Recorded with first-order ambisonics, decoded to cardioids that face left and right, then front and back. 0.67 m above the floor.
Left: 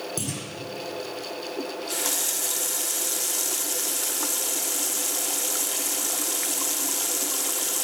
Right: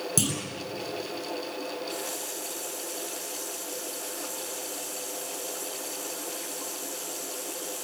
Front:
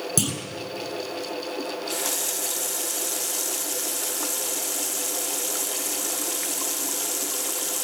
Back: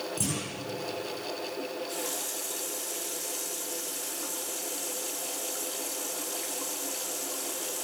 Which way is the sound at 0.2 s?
25° right.